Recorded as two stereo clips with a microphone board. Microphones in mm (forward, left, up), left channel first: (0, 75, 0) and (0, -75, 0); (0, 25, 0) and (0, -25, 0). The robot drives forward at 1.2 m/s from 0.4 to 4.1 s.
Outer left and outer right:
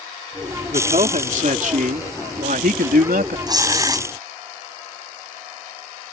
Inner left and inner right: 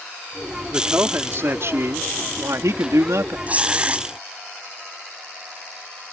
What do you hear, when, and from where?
0.7 s a man speaking: 50° right (ahead or behind); by 3.4 s 85° right
3.5 s tearing paper: 25° right (ahead or behind)